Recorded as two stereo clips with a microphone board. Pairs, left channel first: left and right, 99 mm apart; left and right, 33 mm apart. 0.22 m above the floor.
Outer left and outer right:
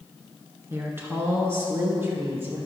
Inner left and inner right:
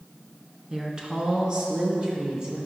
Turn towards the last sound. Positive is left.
turn(degrees=-25)  # may be behind; listen again after turning